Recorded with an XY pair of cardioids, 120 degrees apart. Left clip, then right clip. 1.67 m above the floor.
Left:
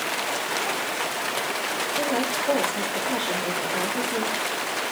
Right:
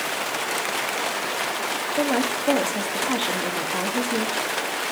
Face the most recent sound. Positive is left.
turn(degrees=-60)